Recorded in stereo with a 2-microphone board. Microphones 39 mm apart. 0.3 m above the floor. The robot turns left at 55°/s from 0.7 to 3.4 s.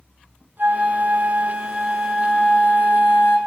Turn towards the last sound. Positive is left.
turn(degrees=95)